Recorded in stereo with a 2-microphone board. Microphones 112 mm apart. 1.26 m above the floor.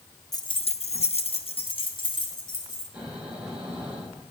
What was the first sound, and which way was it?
Keys jangling, 30° left (ahead or behind).